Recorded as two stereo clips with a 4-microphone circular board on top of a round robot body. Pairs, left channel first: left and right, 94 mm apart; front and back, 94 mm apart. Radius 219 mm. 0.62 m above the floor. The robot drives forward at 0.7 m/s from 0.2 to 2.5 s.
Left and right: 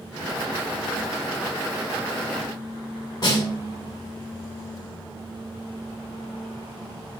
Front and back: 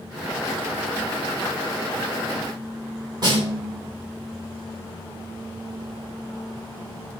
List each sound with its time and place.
3.2 s a snare drum: 135° left, 5 m